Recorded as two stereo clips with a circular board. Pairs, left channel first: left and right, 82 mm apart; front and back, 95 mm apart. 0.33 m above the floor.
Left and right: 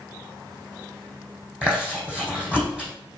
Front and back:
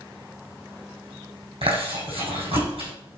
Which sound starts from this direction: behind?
Chewing, at 1.6 s.